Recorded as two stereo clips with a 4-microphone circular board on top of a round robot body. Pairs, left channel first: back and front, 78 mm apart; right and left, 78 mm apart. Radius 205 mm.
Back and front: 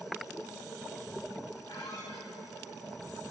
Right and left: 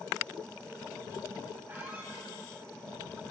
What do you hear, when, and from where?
1.7 s a squeak: 155° left, 3.5 m